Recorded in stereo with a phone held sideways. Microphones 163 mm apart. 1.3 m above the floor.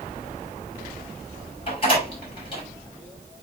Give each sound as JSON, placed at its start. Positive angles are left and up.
{"t": 1.7, "sound": "a door slam", "side_deg": 35, "distance_m": 6.5}